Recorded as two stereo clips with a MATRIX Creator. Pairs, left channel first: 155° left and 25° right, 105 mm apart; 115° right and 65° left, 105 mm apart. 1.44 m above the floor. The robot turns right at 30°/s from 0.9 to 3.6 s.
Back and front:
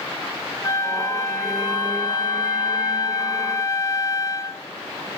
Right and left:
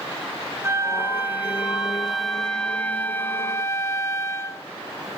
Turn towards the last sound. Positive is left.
turn(degrees=-160)